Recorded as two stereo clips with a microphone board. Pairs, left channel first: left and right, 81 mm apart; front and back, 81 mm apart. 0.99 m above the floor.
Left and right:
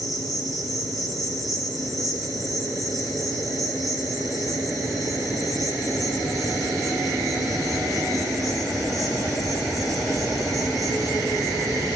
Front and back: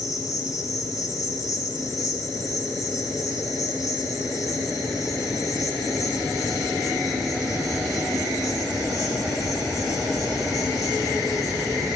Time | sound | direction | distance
0.0 | an insect | 50° left | 8 m